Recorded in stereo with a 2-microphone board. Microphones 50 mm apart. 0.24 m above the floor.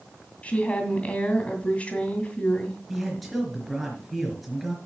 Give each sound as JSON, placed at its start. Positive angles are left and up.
{"t": 0.4, "sound": "a woman speaking", "side_deg": 30, "distance_m": 2.0}
{"t": 2.9, "sound": "a man speaking", "side_deg": -5, "distance_m": 4.0}